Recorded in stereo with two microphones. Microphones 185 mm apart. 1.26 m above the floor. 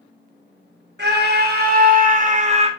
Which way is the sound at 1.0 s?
65° right (ahead or behind).